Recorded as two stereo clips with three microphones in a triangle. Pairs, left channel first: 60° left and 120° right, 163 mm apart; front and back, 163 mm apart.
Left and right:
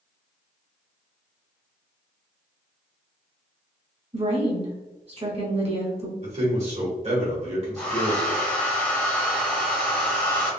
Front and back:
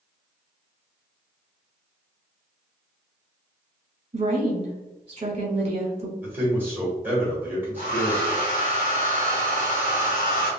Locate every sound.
4.1 s a woman speaking: 150° right, 1.2 m
6.2 s a man speaking: 110° right, 1.6 m
7.8 s a hair dryer: 20° right, 1.2 m